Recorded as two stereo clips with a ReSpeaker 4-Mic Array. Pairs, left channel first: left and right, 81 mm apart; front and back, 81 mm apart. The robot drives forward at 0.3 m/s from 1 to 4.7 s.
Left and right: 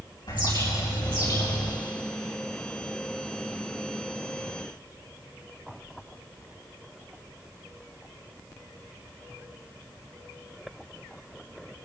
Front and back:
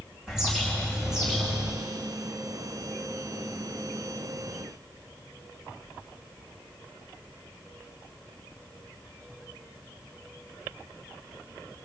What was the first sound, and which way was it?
A bird, 95° left.